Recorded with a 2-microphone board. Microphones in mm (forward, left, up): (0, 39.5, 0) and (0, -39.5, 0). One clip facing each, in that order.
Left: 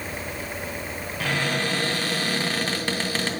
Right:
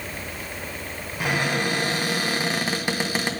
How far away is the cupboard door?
About 0.7 m.